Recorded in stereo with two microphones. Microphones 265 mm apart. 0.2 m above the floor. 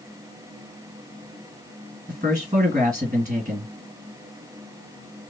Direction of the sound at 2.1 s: 30° right (ahead or behind).